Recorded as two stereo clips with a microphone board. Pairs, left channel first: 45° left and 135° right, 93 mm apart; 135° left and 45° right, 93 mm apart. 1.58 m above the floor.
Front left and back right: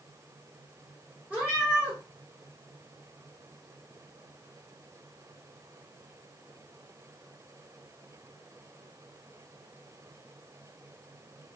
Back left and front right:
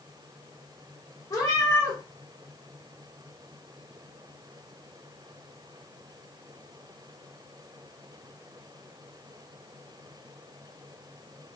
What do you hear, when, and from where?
1.3 s a cat meowing: 160° left, 1.2 m